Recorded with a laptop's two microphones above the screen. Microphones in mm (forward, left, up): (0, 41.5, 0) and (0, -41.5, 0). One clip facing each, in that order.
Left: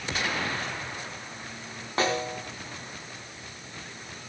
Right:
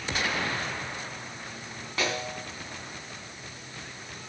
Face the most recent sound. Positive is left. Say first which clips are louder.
# left 4 dB
turn(degrees=35)  # may be behind; listen again after turning